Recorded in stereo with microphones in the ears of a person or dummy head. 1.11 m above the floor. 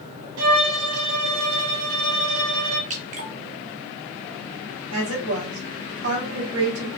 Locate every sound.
0.4 s a violin: 75° right (ahead or behind), 0.8 m
2.9 s dripping: 40° right (ahead or behind), 0.9 m
4.9 s a woman speaking: 75° right (ahead or behind), 2 m